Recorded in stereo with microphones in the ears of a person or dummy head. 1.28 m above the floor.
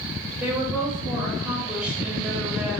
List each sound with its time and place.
0.4 s a woman speaking: 5° right (ahead or behind), 1.3 m